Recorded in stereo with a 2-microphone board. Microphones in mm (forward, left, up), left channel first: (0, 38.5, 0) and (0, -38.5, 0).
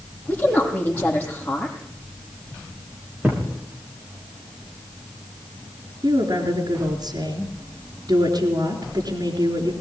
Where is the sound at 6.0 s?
60° right (ahead or behind), 4 m.